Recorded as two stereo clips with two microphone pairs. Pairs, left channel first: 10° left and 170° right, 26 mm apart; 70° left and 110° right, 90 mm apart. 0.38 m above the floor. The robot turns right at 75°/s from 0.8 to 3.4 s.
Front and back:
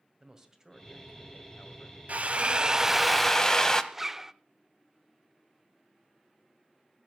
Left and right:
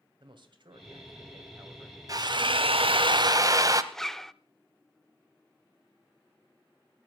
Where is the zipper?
140° left, 0.5 m.